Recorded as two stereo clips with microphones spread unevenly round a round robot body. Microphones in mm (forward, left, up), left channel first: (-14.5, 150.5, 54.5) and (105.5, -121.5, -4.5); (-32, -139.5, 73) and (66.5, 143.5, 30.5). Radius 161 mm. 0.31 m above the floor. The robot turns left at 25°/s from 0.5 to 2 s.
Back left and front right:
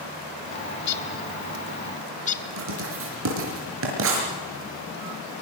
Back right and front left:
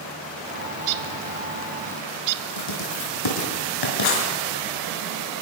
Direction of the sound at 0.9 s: 75° left.